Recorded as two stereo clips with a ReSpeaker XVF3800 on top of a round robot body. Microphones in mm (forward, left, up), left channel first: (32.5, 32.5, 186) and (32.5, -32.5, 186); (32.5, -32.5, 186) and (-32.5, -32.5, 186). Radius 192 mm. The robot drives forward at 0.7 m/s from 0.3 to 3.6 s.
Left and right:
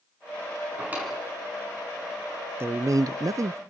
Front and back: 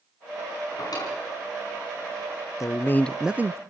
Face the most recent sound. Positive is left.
turn(degrees=-130)